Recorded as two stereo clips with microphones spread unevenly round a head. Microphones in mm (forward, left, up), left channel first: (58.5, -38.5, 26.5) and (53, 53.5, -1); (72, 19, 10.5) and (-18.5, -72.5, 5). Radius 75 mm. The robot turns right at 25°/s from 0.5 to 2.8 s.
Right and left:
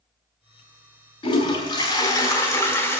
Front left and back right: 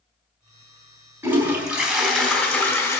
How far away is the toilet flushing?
About 4 m.